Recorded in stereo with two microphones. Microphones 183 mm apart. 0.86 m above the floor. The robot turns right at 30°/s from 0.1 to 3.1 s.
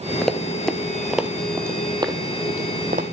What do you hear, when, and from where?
0.2 s running footsteps: 5° left (ahead or behind), 0.9 m; by 3.0 s 45° right (ahead or behind), 2 m